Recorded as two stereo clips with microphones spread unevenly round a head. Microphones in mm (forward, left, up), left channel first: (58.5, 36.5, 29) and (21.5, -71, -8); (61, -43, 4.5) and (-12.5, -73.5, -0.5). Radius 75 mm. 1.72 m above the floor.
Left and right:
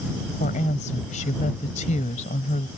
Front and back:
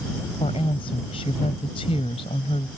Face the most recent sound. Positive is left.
turn(degrees=60)